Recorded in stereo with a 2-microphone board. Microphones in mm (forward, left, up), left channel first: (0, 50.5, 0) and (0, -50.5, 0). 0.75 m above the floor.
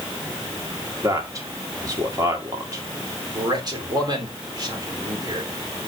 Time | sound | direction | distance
1.0 | a man speaking | 35° right (ahead or behind) | 2 m
3.4 | a man speaking | 40° right (ahead or behind) | 2.5 m